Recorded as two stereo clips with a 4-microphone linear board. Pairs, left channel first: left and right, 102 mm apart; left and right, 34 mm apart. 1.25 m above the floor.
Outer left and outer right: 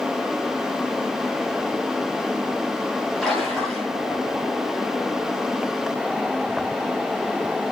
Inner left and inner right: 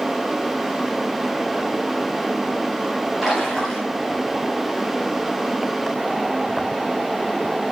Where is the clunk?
I don't hear a clunk.